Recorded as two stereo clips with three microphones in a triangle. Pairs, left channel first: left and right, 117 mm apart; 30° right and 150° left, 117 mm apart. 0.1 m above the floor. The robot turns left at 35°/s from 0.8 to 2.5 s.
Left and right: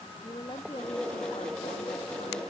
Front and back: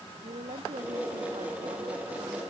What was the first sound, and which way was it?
A woman speaking, 140° left.